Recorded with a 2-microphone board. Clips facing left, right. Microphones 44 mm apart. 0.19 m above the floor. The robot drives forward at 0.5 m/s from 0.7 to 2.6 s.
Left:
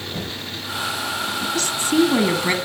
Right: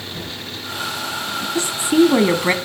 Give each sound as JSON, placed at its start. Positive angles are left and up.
{"t": 0.1, "sound": "knocking", "side_deg": 55, "distance_m": 4.0}
{"t": 1.6, "sound": "a woman speaking", "side_deg": -20, "distance_m": 1.0}